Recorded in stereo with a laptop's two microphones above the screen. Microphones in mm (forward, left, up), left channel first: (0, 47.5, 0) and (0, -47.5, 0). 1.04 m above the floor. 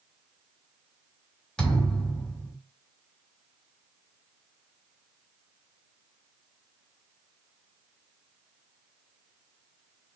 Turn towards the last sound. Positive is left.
turn(degrees=10)  # may be behind; listen again after turning